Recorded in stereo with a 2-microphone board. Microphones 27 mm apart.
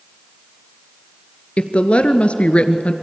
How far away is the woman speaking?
About 1.6 m.